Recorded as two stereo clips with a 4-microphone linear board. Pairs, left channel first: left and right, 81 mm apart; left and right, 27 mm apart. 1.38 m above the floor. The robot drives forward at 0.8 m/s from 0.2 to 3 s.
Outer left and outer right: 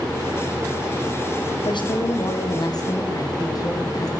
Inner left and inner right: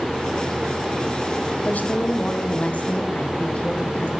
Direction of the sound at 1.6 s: 70° left (ahead or behind).